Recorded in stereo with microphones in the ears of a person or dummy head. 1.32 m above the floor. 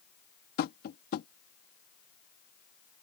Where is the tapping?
55° left (ahead or behind).